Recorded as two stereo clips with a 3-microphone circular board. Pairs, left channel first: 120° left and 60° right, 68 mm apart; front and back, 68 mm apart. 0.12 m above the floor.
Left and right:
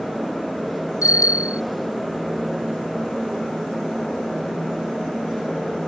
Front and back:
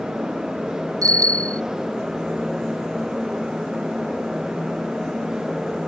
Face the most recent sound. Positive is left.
turn(degrees=150)